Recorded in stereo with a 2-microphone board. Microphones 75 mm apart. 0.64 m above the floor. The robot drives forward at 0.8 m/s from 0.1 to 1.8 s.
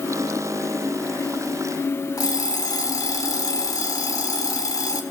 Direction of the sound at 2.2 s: 50° left (ahead or behind).